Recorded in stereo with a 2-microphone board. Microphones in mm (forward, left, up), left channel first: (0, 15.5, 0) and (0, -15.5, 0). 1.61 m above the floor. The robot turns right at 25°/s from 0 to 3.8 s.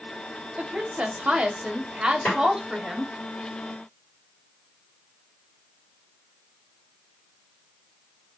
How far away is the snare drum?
About 2.0 m.